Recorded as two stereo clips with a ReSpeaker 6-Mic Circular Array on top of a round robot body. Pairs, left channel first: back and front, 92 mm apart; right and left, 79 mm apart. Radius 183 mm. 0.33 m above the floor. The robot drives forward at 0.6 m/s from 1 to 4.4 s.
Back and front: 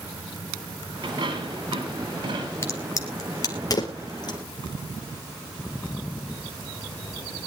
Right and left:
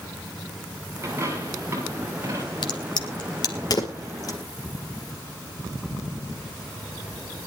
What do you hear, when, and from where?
1.0 s a dropped coin: 30° left, 8 m
2.6 s a crack: 120° right, 2.5 m; by 4.4 s 135° right, 3 m